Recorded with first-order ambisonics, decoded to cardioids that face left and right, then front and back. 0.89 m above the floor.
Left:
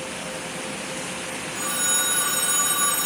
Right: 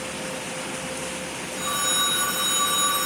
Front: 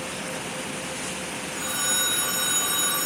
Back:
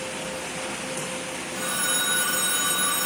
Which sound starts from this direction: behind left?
A phone ringing, at 1.6 s.